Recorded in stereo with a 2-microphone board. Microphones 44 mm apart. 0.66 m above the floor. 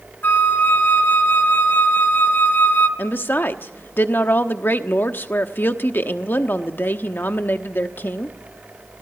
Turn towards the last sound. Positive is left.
turn(degrees=50)  # may be behind; listen again after turning